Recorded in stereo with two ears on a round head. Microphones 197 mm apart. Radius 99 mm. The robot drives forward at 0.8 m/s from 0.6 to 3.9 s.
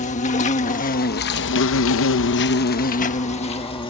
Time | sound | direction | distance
0.0 | an insect | 30° left (ahead or behind) | ?